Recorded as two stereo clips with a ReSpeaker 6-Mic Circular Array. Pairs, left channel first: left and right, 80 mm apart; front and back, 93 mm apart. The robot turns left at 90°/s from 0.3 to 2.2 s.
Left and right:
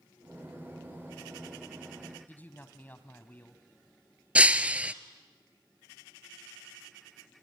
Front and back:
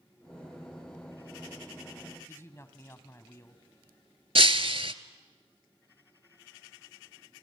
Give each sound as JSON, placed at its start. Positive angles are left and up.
{"t": 2.3, "sound": "a man speaking", "azimuth_deg": 40, "distance_m": 1.5}
{"t": 4.3, "sound": "breaking glass", "azimuth_deg": -160, "distance_m": 0.6}